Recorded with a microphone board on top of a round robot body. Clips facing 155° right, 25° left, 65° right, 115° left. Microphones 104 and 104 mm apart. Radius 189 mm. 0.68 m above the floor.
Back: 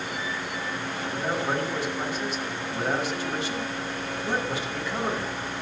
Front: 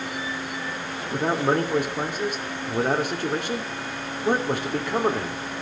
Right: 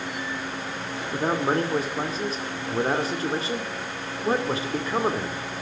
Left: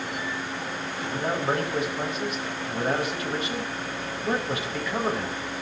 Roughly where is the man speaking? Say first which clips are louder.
Front 6 dB, right 3 dB; ahead.